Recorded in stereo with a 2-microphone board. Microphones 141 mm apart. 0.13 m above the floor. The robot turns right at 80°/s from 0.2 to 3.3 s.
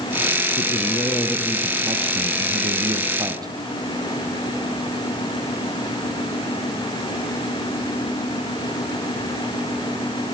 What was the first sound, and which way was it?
A man speaking, 110° left.